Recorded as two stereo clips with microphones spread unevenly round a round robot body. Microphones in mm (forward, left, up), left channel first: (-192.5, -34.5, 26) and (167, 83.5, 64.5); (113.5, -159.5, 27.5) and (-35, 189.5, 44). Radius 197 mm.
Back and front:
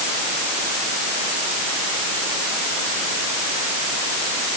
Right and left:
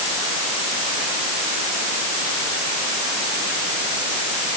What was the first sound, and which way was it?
Only background noise.